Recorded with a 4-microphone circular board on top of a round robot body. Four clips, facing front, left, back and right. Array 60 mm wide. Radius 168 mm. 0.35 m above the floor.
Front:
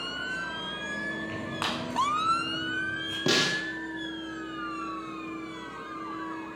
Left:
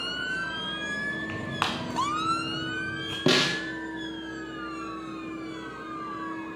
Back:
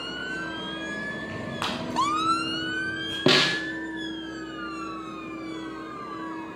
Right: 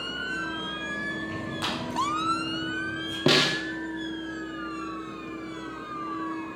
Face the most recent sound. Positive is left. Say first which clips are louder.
# right 1 dB, back 5 dB
turn(degrees=-170)